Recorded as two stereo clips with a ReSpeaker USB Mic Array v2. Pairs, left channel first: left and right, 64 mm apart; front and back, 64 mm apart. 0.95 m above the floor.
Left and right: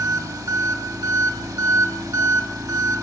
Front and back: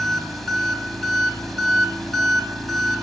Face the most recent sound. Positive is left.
turn(degrees=-90)